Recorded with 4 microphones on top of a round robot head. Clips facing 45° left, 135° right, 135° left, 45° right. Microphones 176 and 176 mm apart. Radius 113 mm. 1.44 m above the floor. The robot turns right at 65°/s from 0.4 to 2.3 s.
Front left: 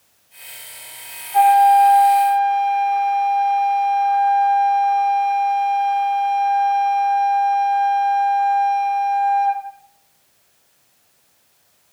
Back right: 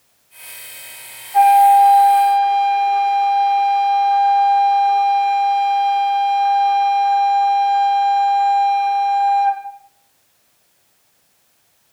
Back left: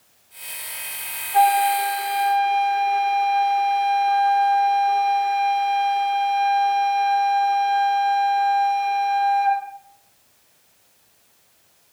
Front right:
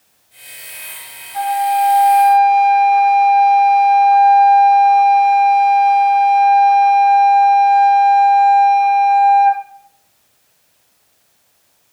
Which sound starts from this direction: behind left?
A flute, at 1.3 s.